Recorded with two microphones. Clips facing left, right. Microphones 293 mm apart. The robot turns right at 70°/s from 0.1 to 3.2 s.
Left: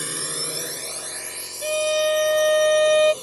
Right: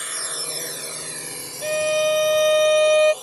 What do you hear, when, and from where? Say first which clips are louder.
0.0 s a drone: left 5 dB; 55° left (ahead or behind); by 3.2 s 30° left (ahead or behind)
1.6 s a violin: right 1 dB; 15° left (ahead or behind); by 3.1 s 20° left (ahead or behind)